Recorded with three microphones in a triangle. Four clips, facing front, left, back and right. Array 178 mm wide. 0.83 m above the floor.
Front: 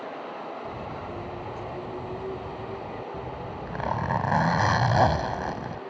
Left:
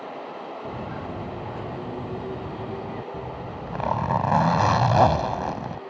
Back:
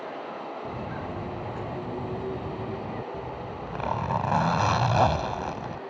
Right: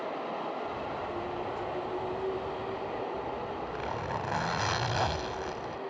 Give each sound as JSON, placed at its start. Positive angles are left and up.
{"t": 0.7, "sound": "footsteps", "azimuth_deg": 110}
{"t": 3.1, "sound": "a zipper", "azimuth_deg": 80}